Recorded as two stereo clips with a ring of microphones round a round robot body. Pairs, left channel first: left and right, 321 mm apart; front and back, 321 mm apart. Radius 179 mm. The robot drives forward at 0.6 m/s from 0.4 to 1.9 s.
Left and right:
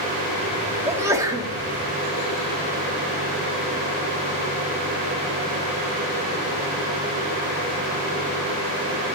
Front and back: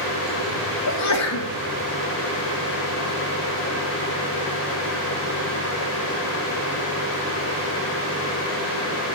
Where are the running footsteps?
I don't hear running footsteps.